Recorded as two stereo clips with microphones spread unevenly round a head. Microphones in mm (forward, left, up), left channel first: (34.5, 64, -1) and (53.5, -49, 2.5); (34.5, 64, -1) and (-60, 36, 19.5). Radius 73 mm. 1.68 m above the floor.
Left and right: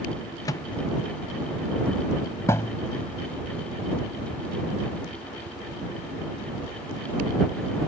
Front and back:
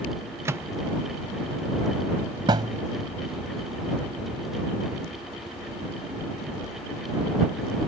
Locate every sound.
0.5 s a microwave: 160° left
2.5 s a thud: 170° left